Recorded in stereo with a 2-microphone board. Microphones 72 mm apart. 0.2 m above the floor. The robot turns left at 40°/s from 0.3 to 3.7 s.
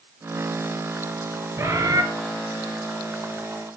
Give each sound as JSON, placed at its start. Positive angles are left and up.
{"t": 1.6, "sound": "a bird", "side_deg": -40, "distance_m": 1.7}